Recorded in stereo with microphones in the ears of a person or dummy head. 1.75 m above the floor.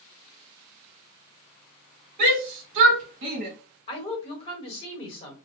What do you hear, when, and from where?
2.2 s a shout: 60° right (ahead or behind), 1.4 m
3.9 s a woman speaking: 30° left (ahead or behind), 1.1 m